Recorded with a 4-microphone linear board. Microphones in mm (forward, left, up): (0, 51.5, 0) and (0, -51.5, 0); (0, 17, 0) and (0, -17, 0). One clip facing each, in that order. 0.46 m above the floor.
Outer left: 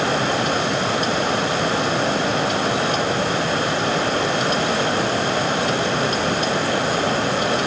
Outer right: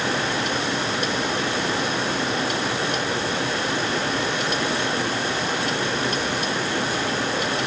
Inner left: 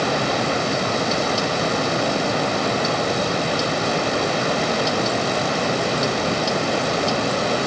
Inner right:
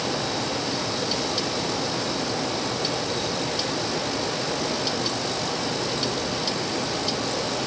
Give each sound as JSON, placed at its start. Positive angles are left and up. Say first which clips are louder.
{"t": 0.0, "sound": "running water", "louder": "outer left 4 dB, inner left 6 dB", "side_deg": 65, "distance_m": 1.2}